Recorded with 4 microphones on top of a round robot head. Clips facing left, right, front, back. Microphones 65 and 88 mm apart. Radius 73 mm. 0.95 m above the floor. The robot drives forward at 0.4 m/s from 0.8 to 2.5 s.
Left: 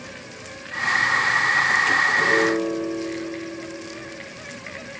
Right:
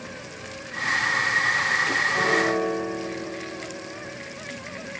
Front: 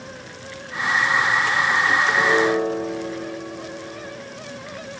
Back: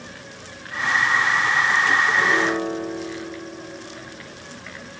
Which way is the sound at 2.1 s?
65° right.